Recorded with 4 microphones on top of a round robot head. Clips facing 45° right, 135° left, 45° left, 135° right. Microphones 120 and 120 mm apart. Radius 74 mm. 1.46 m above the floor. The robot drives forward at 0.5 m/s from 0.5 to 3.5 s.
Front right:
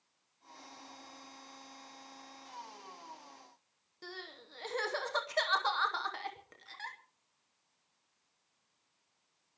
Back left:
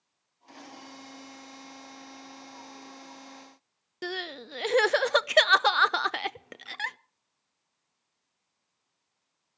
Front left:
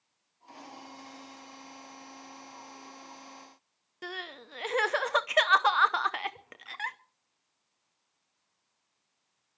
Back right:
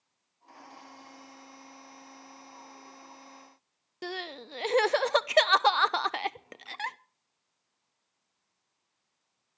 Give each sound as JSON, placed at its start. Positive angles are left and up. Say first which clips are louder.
{"t": 4.0, "sound": "crying", "louder": "back left 13 dB, back right 4 dB", "azimuth_deg": 165, "distance_m": 0.6}